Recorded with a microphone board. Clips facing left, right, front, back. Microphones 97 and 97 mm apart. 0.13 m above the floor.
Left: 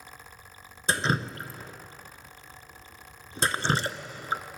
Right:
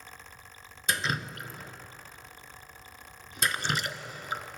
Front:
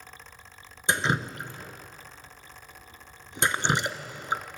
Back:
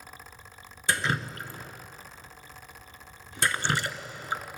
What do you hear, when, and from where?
0.9 s dripping: 55° left, 1.0 m